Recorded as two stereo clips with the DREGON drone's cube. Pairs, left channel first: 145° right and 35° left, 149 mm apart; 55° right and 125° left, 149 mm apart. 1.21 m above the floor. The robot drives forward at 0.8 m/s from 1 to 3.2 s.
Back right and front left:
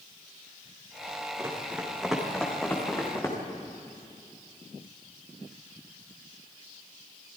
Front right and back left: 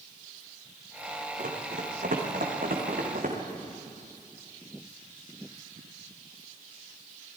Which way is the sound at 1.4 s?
105° left.